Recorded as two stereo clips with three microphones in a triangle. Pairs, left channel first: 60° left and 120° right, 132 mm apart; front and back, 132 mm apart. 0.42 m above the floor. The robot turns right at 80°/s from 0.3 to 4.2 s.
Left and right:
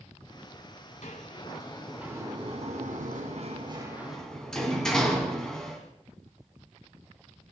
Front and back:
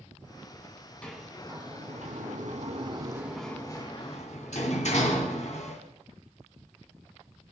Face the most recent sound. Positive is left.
turn(degrees=-25)